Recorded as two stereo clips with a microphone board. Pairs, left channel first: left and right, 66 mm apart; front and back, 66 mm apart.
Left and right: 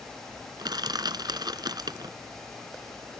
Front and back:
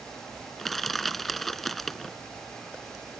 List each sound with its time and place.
0.6 s crushing: 85° right